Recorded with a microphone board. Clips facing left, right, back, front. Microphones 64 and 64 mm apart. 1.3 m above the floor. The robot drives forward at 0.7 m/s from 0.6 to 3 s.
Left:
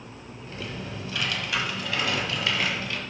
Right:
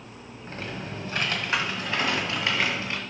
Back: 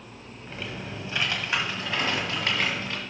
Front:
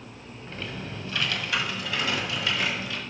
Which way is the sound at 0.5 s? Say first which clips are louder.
Right 1 dB, even; 100° right.